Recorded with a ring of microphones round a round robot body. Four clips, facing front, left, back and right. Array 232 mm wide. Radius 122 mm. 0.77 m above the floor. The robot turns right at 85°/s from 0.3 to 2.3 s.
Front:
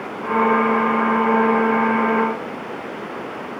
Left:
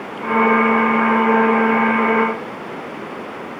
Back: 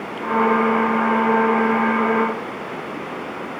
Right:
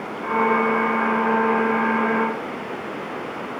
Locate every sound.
Only background noise.